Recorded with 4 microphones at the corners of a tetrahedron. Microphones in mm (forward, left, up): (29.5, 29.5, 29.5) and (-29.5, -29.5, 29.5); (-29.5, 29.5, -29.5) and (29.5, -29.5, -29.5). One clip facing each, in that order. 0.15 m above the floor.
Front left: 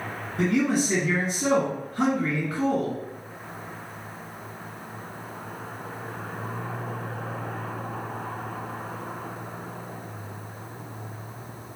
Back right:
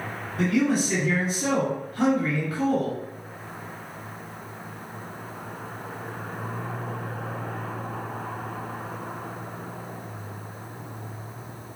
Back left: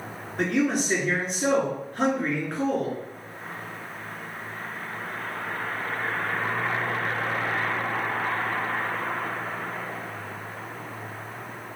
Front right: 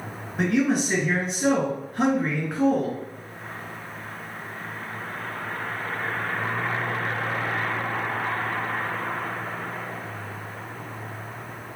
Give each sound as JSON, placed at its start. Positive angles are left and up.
{"t": 0.4, "sound": "a man speaking", "azimuth_deg": 25, "distance_m": 1.5}